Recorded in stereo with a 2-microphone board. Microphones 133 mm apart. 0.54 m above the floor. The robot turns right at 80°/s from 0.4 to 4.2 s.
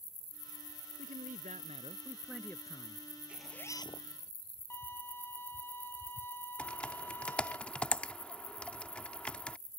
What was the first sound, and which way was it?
A man speaking, 110° right.